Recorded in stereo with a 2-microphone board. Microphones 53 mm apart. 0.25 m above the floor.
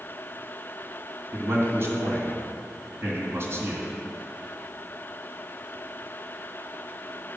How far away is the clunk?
I don't hear a clunk.